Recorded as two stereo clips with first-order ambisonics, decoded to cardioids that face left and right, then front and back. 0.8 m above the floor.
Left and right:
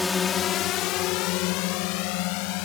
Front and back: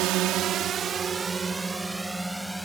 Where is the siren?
I don't hear a siren.